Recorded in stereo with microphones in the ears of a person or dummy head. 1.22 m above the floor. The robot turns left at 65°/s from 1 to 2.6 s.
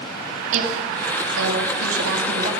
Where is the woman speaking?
45° right, 2 m; by 2.5 s 140° right, 2 m.